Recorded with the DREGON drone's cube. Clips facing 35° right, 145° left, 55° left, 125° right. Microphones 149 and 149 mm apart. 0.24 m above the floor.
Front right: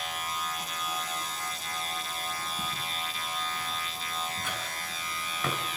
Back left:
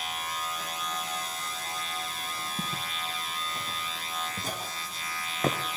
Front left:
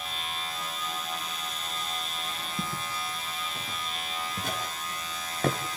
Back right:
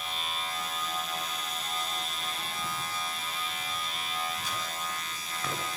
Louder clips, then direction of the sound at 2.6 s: Even, front left 2 dB; 95° left.